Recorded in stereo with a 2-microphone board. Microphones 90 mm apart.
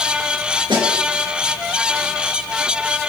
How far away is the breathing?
I don't hear breathing.